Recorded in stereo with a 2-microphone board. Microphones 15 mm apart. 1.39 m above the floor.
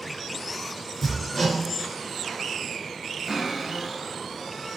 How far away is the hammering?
About 5.5 m.